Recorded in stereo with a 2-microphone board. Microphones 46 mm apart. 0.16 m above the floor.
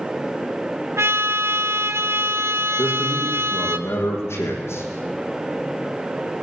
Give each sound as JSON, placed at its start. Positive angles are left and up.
{"t": 1.0, "sound": "a trumpet", "side_deg": -75, "distance_m": 1.5}
{"t": 2.8, "sound": "a man speaking", "side_deg": 65, "distance_m": 7.0}